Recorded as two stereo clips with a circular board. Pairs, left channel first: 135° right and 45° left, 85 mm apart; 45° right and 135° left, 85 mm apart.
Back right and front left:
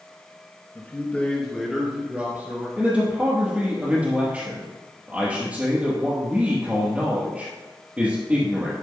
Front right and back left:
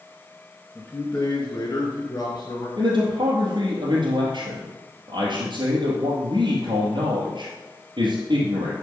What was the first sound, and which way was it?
A man speaking, 105° right.